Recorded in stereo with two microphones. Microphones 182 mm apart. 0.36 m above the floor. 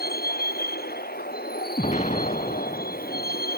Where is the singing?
I don't hear singing.